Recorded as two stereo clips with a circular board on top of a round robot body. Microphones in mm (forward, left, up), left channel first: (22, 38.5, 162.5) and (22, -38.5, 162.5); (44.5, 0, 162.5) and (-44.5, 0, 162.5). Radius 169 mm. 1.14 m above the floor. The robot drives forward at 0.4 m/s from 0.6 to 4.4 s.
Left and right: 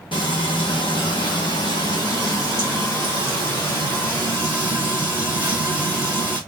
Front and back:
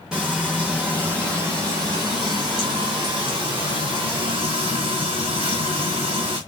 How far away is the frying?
About 1.0 m.